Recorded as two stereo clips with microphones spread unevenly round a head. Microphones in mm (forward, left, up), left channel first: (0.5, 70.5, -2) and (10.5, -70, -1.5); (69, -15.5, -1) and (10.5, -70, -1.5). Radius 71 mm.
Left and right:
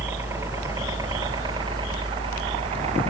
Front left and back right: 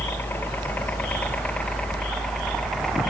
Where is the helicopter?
15° right; by 3.1 s 45° right.